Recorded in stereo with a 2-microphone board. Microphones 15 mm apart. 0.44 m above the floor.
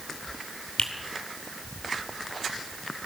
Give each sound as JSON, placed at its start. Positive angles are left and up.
{"t": 0.8, "sound": "a finger snap", "side_deg": 75, "distance_m": 3.5}